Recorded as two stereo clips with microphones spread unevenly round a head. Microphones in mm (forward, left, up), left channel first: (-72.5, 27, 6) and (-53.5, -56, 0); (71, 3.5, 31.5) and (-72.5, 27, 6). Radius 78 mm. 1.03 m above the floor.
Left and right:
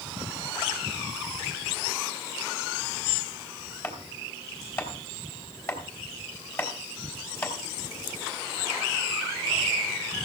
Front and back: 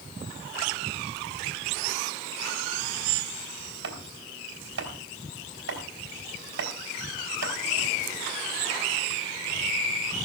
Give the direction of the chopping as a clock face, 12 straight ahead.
7 o'clock.